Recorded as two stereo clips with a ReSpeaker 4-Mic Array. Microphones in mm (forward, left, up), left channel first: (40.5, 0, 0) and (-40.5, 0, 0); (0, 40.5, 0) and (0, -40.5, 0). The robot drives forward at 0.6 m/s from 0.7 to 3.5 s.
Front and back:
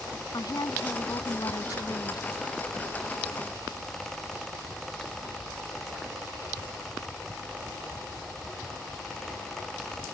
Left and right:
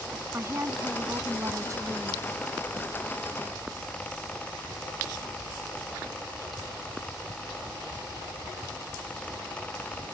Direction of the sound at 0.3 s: 35° right.